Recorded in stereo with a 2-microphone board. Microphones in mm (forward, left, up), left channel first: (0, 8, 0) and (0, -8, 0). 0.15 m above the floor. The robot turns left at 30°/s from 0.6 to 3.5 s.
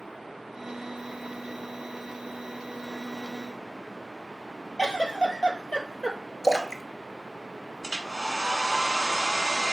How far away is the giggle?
About 1.1 m.